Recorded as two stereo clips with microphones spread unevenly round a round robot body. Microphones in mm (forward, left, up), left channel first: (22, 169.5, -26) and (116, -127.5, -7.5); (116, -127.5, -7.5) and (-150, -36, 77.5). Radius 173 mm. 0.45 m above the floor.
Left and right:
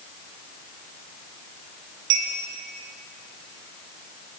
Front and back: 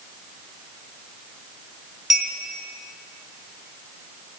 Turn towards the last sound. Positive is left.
turn(degrees=-105)